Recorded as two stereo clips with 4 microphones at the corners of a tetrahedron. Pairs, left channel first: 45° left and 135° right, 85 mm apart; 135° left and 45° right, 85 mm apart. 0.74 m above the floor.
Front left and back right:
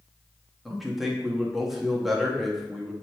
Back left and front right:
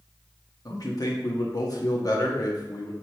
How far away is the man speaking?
About 1.1 m.